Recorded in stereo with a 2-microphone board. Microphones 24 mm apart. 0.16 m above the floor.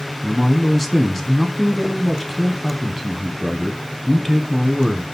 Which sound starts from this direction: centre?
A man speaking, at 0.2 s.